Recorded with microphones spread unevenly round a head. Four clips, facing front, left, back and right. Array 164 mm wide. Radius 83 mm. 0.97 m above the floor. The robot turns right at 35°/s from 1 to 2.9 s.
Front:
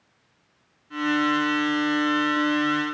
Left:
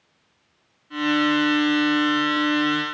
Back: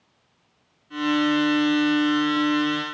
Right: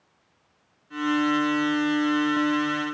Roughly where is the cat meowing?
I don't hear a cat meowing.